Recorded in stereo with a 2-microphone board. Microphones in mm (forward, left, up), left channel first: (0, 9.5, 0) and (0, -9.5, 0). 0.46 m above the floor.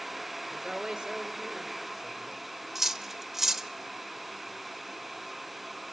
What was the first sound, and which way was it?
A woman speaking, 35° right (ahead or behind).